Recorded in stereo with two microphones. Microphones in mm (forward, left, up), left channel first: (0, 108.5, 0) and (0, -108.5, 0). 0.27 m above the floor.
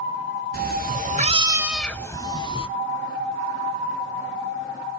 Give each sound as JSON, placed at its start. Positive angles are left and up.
{"t": 0.5, "sound": "a cat meowing", "side_deg": -45, "distance_m": 1.0}